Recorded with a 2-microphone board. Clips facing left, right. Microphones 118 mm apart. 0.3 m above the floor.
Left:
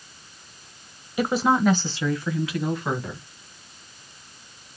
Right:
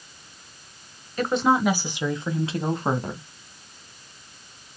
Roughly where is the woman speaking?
Centre.